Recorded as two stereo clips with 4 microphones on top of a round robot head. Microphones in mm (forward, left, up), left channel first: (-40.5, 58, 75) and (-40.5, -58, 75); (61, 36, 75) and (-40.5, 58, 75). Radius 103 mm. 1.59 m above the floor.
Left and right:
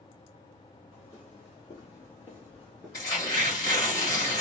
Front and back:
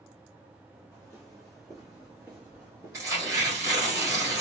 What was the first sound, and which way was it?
Footsteps, 65° left.